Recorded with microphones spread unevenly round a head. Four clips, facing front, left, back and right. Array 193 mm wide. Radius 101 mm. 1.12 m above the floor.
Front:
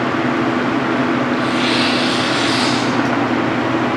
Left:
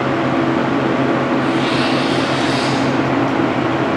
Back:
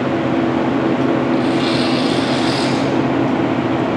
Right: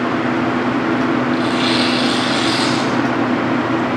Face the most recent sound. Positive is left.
turn(degrees=-130)